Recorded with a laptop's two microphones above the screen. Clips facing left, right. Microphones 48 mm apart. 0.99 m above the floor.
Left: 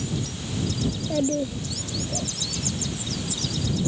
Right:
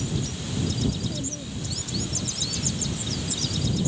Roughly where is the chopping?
I don't hear chopping.